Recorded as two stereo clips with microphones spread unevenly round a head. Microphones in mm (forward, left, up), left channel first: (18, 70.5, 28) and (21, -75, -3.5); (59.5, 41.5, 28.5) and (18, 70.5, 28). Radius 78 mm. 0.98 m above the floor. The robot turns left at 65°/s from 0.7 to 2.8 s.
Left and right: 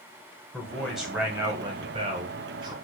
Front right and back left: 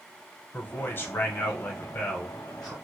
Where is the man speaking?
5° left, 0.9 m; by 2.7 s 130° right, 0.9 m.